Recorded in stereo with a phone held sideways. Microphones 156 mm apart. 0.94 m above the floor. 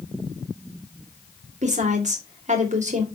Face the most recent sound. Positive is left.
turn(degrees=-50)  # may be behind; listen again after turning